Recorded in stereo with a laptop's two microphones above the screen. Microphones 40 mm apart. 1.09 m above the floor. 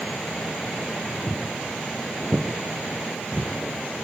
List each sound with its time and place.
1.3 s footsteps: 30° right (ahead or behind), 5.5 m; by 3.5 s 15° right (ahead or behind), 6 m